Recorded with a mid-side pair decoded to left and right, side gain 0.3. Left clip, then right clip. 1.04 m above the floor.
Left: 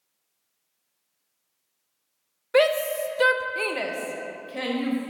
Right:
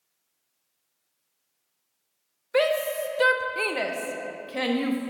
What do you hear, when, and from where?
2.5 s a shout: 40° left, 0.8 m; by 5.1 s 55° right, 1.2 m